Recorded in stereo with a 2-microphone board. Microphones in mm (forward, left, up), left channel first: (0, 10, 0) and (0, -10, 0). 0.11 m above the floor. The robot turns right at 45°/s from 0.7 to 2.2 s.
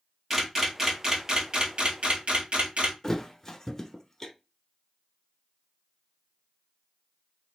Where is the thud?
20° left (ahead or behind), 0.7 m.